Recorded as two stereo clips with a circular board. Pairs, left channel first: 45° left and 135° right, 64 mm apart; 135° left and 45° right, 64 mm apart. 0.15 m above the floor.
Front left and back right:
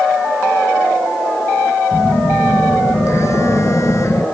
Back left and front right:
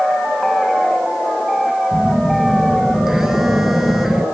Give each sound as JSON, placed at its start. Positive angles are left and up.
{"t": 1.9, "sound": "a phone buzzing", "azimuth_deg": 40, "distance_m": 1.7}